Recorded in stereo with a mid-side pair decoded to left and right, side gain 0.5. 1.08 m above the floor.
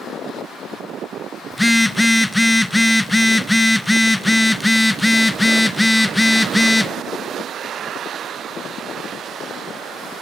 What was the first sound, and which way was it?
A phone buzzing, 10° left.